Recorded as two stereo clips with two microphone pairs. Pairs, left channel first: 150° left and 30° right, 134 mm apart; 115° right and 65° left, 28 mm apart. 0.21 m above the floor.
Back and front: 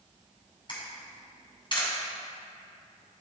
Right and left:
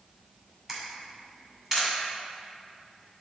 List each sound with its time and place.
0.7 s a camera shutter: 135° left, 2 m